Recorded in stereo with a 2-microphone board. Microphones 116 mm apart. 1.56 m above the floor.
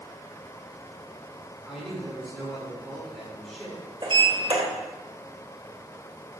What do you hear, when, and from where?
1.7 s a man speaking: centre (ahead or behind), 4.5 m
4.0 s a sliding door: 45° right (ahead or behind), 2.5 m